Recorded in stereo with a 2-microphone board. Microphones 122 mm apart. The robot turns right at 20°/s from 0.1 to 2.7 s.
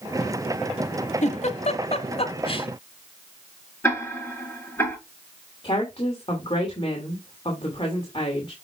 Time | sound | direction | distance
1.2 | a giggle | 70° left (ahead or behind) | 0.9 m
3.8 | ticking | 20° left (ahead or behind) | 5.5 m
5.6 | a woman speaking | 45° left (ahead or behind) | 2.5 m